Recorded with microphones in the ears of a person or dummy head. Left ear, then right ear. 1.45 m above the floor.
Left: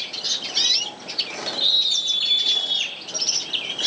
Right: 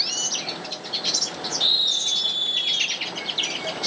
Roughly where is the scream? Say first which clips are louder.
Left 1 dB; right.